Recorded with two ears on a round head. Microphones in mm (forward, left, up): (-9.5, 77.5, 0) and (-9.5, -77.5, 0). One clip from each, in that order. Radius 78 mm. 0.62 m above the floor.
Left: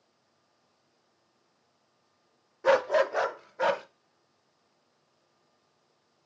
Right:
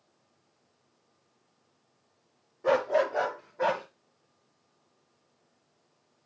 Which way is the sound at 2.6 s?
50° left (ahead or behind).